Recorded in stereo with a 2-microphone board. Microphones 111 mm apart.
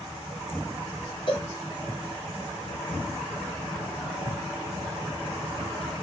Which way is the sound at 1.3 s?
50° left (ahead or behind).